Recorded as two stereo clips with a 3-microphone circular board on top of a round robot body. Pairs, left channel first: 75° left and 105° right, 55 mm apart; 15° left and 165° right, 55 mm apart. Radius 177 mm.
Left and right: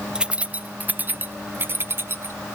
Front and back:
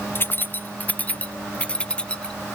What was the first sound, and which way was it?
Keys jangling, 30° right.